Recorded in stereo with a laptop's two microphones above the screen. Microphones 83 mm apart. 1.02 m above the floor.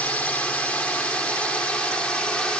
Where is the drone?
15° left (ahead or behind); by 2.6 s 10° left (ahead or behind).